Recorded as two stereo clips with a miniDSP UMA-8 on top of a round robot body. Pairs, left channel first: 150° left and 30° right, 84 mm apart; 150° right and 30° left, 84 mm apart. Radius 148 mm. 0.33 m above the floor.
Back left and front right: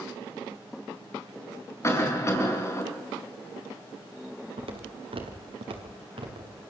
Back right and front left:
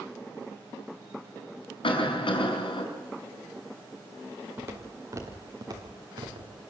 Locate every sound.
1.8 s a cough: 155° right, 5 m
4.6 s footsteps: 30° right, 4 m; by 6.5 s 5° right, 4.5 m